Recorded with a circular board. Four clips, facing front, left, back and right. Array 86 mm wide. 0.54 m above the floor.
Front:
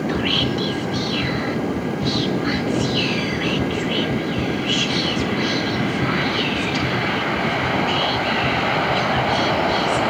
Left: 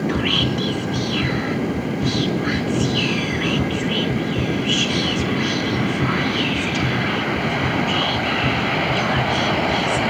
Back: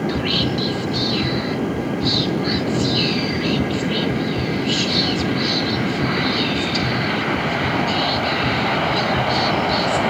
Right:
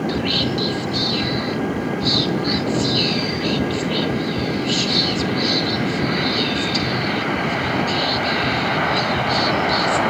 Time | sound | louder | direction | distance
0.1 | whispering | even, even | 60° left | 0.9 m